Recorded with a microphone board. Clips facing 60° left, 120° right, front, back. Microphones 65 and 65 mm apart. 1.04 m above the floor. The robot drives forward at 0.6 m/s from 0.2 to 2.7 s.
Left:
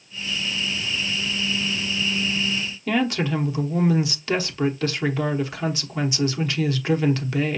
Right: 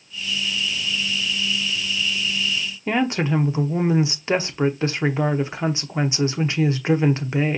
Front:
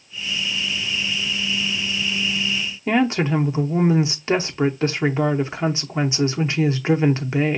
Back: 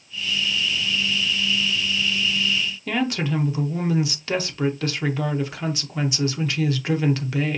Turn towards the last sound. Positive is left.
turn(degrees=-60)